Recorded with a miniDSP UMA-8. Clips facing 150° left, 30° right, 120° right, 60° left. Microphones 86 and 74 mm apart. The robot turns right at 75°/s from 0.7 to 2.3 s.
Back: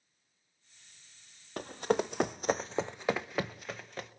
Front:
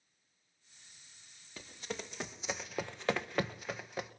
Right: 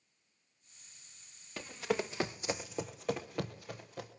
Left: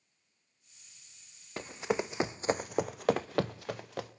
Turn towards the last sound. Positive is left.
turn(degrees=50)